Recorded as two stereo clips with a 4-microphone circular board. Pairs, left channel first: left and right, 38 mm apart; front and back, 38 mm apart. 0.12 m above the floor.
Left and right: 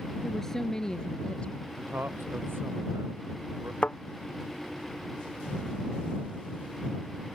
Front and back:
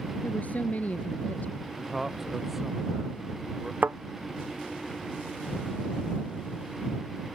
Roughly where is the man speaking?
Right.